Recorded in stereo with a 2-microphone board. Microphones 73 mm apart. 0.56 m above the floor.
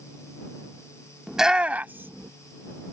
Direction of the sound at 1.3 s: 5° right (ahead or behind).